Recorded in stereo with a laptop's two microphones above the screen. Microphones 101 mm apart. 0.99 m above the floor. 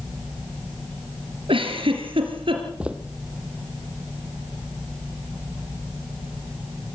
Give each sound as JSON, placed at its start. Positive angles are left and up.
{"t": 1.5, "sound": "a giggle", "side_deg": -60, "distance_m": 3.5}
{"t": 2.8, "sound": "footsteps", "side_deg": -10, "distance_m": 1.7}